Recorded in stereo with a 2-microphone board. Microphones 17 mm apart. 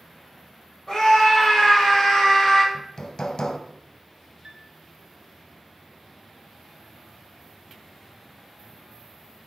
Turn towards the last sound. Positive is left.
turn(degrees=-30)  # may be behind; listen again after turning